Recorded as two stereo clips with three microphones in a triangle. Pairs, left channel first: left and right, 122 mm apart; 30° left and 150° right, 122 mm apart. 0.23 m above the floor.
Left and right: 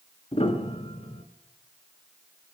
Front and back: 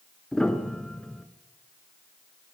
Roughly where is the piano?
Behind left.